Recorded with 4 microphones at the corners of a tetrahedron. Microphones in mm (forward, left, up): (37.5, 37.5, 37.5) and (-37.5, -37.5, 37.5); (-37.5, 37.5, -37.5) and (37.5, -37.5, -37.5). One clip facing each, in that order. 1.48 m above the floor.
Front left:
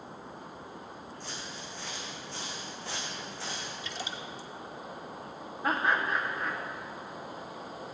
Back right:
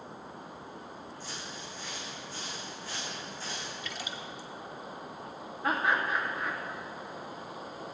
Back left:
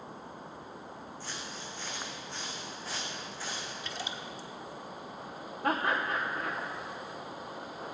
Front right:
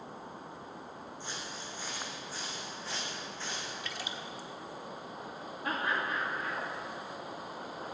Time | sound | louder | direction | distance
1.2 | footsteps | even, even | 25° left | 4 m
3.8 | a splash | front left 1 dB, back left 1 dB | 85° left | 1.3 m
5.6 | laughter | even, back left 4 dB | 125° left | 1.3 m